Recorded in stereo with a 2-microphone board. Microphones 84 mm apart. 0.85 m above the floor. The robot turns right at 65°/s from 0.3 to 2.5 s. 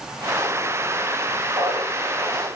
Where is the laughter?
115° right, 4.5 m; by 2.5 s 55° right, 4.5 m.